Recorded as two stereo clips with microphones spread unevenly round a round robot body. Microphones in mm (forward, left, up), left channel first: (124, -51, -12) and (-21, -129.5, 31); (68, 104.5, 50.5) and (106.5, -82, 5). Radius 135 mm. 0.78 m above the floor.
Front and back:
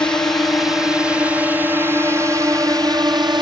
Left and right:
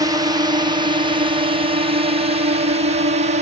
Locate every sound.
0.0 s a drone: 35° right; by 3.4 s 85° right